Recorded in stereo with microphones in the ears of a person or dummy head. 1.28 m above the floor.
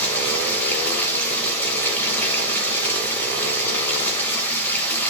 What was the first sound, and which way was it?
Running water, 10° left (ahead or behind).